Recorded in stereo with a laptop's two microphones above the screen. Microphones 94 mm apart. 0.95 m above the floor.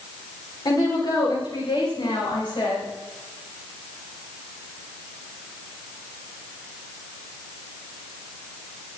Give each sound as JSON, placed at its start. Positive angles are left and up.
{"t": 0.7, "sound": "a woman speaking", "side_deg": 45, "distance_m": 4.0}